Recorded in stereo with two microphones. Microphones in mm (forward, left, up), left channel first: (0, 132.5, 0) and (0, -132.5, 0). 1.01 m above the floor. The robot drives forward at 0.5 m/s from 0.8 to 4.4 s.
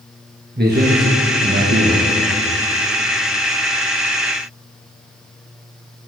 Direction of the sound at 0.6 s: 40° right (ahead or behind).